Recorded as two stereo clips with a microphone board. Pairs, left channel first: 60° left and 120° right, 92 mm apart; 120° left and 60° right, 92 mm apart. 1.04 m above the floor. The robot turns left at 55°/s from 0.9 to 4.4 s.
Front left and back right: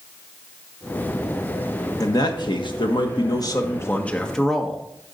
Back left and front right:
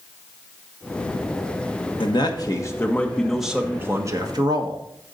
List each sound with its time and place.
2.0 s a man speaking: 105° left, 1.3 m; by 4.8 s 30° right, 1.3 m